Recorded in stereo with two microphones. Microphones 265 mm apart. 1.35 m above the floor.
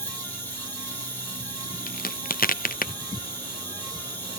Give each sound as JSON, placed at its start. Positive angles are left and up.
{"t": 0.0, "sound": "an insect", "side_deg": 10, "distance_m": 5.0}
{"t": 1.9, "sound": "a crack", "side_deg": 35, "distance_m": 0.7}